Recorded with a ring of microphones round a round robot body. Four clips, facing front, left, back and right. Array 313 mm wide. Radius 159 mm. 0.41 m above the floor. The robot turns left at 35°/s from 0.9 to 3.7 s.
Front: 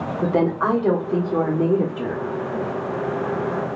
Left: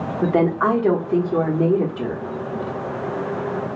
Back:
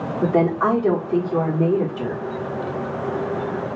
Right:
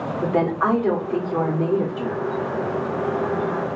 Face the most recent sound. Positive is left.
turn(degrees=-20)